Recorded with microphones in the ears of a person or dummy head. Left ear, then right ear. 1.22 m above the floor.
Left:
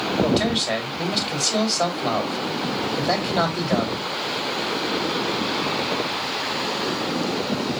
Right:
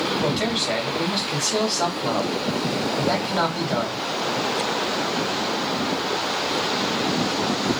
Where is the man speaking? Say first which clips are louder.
Left 1 dB; 20° left (ahead or behind), 1.9 m.